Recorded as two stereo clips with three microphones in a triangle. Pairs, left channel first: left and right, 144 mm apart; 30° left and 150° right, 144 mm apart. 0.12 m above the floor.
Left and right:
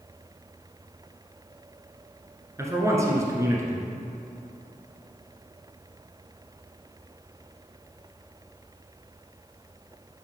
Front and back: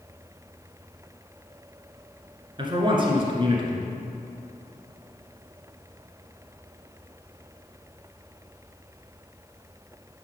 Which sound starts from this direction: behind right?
A man speaking, at 2.6 s.